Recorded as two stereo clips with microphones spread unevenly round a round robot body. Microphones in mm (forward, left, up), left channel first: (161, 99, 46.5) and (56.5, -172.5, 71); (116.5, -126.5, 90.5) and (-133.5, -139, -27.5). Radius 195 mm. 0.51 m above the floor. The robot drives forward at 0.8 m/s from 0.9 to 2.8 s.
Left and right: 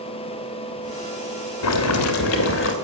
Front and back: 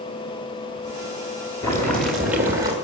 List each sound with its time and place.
1.6 s boiling: 95° left, 2 m; by 2.7 s 115° left, 2.5 m